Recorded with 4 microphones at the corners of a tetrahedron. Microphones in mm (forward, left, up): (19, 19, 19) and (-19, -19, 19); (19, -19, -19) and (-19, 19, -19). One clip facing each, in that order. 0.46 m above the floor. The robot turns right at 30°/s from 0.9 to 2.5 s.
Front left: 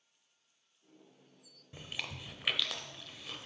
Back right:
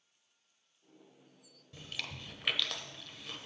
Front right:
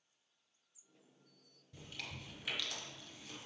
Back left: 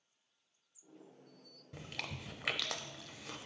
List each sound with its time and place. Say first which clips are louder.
1.7 s chewing: front left 1 dB, back left 4 dB; 110° left, 0.6 m; by 3.5 s 135° left, 0.6 m